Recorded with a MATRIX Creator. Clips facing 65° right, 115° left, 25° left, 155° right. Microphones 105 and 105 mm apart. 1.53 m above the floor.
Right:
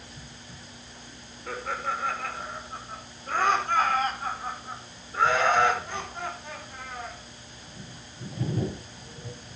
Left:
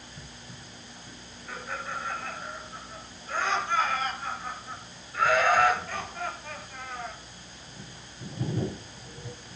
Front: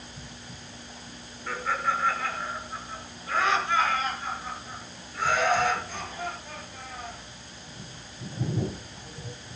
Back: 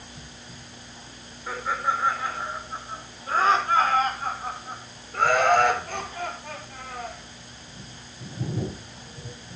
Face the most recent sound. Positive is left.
turn(degrees=-145)